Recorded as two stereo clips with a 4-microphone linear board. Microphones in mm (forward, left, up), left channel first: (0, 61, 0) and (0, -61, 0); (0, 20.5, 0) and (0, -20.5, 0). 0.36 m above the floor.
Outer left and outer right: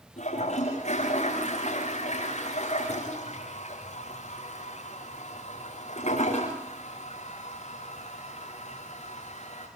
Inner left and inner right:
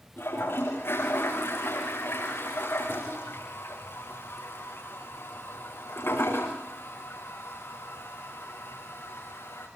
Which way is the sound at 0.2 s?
65° left (ahead or behind).